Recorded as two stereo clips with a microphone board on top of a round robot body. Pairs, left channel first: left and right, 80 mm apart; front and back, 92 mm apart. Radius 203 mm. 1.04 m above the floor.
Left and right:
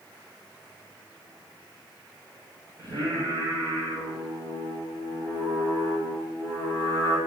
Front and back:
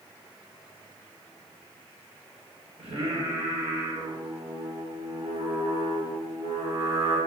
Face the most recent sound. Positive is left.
turn(degrees=-145)